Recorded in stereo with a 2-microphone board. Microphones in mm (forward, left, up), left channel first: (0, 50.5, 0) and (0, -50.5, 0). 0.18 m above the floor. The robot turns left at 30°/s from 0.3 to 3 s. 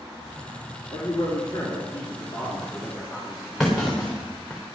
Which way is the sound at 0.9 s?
60° left.